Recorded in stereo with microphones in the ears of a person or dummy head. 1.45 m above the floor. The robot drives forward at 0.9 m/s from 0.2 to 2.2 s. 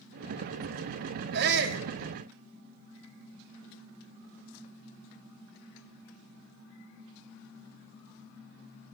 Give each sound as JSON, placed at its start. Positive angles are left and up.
{"t": 1.3, "sound": "a shout", "side_deg": -60, "distance_m": 3.0}